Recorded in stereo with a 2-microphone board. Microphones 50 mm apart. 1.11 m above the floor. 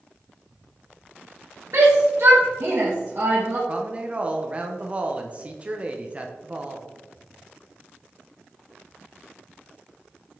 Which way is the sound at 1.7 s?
65° right (ahead or behind).